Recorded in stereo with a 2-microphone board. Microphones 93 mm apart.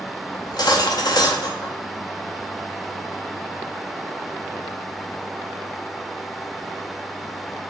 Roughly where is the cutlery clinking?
Left.